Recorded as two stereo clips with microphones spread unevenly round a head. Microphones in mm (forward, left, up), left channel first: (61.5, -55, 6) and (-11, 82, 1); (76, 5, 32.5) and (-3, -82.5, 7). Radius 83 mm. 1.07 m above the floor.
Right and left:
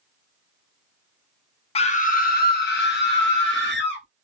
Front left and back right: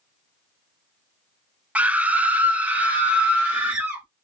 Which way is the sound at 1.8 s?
80° right.